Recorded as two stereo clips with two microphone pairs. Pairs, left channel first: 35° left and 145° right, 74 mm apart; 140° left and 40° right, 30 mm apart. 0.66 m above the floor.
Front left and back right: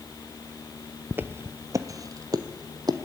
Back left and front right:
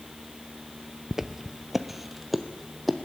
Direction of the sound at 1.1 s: 115° right.